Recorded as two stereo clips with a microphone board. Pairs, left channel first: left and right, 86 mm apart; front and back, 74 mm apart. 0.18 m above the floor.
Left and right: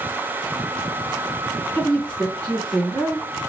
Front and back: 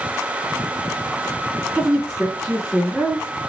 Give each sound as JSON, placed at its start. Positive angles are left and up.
{"t": 1.7, "sound": "a woman speaking", "azimuth_deg": 140, "distance_m": 1.8}